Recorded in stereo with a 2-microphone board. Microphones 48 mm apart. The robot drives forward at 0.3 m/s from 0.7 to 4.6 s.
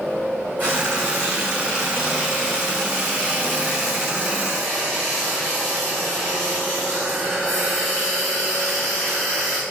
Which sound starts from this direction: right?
Frying, at 0.6 s.